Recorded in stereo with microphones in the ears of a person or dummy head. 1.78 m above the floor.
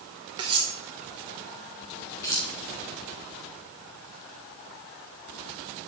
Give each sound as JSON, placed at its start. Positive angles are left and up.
{"t": 0.4, "sound": "cutlery clinking", "side_deg": -30, "distance_m": 1.3}
{"t": 2.2, "sound": "keys jangling", "side_deg": 20, "distance_m": 2.5}